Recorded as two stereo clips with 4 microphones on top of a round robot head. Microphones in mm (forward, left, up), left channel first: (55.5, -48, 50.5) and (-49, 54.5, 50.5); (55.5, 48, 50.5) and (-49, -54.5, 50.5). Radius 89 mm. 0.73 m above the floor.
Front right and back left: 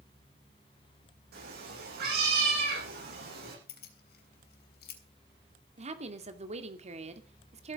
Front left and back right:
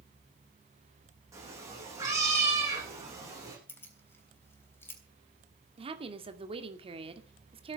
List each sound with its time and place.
1.3 s a cat meowing: 155° left, 9.5 m
3.7 s keys jangling: 30° right, 3.5 m
5.8 s a woman speaking: 175° left, 2.5 m